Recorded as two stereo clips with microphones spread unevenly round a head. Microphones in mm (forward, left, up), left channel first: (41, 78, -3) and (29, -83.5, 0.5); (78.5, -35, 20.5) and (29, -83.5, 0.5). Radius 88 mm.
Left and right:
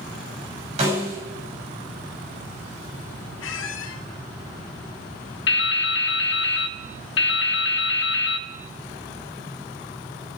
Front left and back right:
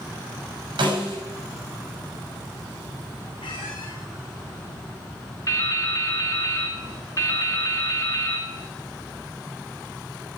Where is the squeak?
90° left, 2.5 m.